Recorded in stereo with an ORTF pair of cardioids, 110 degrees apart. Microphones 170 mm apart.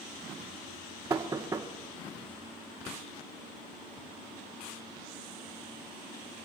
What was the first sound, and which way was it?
Knocking, 20° right.